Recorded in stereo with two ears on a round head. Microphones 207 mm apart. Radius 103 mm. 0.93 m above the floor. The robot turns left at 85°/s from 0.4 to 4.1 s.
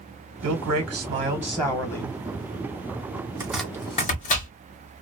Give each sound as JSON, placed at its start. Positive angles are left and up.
{"t": 0.4, "sound": "a man speaking", "azimuth_deg": -90, "distance_m": 0.8}
{"t": 3.4, "sound": "chopping", "side_deg": -10, "distance_m": 1.0}